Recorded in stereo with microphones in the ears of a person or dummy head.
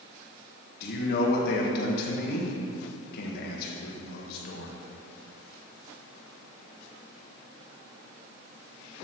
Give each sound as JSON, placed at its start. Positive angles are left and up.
{"t": 0.8, "sound": "a man speaking", "side_deg": 60, "distance_m": 1.3}